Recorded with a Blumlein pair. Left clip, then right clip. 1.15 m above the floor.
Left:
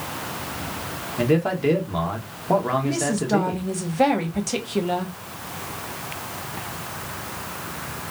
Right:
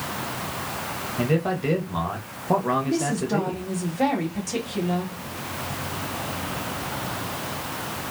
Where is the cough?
I don't hear a cough.